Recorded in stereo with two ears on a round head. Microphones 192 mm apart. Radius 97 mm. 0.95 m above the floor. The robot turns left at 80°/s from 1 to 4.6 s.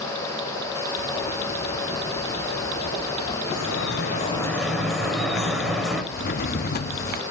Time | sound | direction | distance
3.5 | dripping | 90° left | 5.5 m
6.1 | a drawer | 45° left (ahead or behind) | 0.9 m